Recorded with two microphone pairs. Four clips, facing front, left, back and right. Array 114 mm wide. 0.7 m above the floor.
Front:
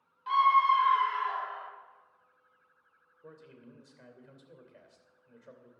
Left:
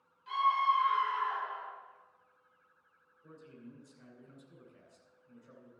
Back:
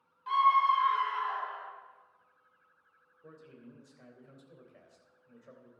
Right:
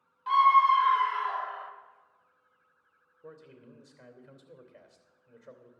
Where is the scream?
80° right, 2 m; by 1.7 s 65° right, 3 m.